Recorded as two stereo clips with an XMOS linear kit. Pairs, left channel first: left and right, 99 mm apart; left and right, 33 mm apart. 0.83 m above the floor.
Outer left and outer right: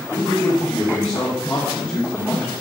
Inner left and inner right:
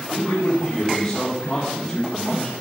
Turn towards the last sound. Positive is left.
turn(degrees=35)  # may be behind; listen again after turning